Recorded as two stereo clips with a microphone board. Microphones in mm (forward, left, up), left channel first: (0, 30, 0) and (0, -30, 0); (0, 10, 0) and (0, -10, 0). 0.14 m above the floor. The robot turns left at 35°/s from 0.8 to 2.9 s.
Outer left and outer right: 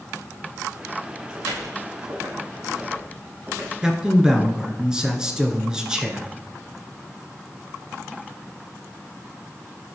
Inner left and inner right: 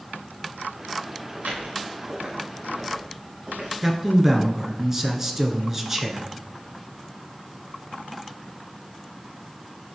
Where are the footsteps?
90° right, 4.5 m; by 3.7 s 35° right (ahead or behind), 7 m.